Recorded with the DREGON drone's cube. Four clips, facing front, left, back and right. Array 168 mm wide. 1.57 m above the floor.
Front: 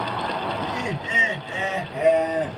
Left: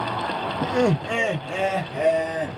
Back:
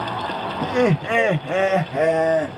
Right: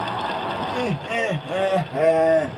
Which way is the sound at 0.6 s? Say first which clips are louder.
Left 4 dB, back 8 dB; 130° left.